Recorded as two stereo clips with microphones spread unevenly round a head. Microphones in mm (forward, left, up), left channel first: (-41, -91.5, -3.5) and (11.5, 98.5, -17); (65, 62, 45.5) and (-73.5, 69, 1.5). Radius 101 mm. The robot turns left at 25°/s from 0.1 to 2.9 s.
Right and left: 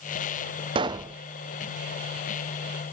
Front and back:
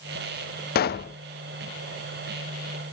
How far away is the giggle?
No giggle in this recording.